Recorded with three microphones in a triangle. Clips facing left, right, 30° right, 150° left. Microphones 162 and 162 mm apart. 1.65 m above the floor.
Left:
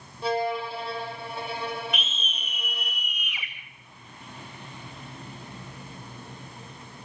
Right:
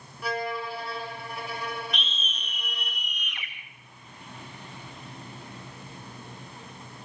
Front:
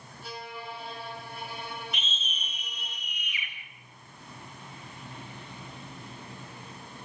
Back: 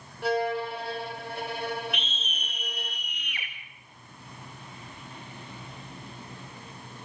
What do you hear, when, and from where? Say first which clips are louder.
0.2 s a violin: left 5 dB, back 14 dB; 150° left, 6 m
1.9 s a scream: left 2 dB, back 4 dB; 175° left, 2.5 m